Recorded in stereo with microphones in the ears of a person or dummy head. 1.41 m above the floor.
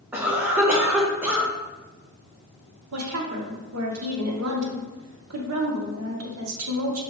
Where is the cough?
5° right (ahead or behind), 0.8 m.